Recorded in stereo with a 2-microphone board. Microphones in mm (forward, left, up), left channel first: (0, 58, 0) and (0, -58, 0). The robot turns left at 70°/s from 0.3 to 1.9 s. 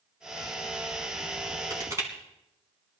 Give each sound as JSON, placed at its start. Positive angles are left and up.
{"t": 1.7, "sound": "crushing", "side_deg": -40, "distance_m": 3.5}